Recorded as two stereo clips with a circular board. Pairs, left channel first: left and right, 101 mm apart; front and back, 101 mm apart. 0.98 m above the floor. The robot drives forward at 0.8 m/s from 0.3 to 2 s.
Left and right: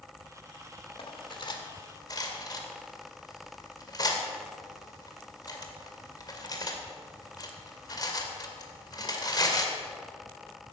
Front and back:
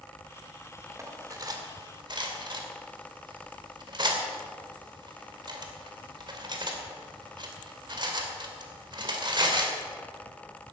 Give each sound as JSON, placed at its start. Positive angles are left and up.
{"t": 1.0, "sound": "cutlery clinking", "azimuth_deg": 120, "distance_m": 1.6}